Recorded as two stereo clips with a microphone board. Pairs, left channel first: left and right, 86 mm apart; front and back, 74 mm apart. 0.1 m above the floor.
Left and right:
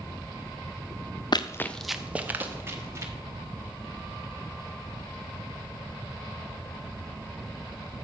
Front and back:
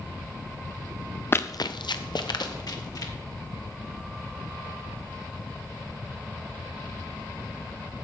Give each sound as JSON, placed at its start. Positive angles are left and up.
{"t": 1.3, "sound": "running footsteps", "azimuth_deg": 60, "distance_m": 0.6}